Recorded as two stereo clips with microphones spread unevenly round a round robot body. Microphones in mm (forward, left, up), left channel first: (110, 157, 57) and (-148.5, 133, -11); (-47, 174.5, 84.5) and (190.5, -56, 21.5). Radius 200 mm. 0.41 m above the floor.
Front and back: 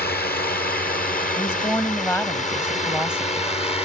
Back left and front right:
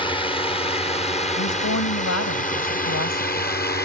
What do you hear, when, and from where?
0.0 s a drone: 55° left; by 3.9 s 80° left
1.4 s a woman speaking: 90° left